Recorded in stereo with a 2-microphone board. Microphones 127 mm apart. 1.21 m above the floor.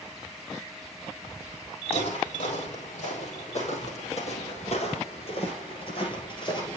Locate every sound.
1.9 s footsteps: 60° left (ahead or behind), 3 m; by 6.8 s 35° left (ahead or behind), 1.8 m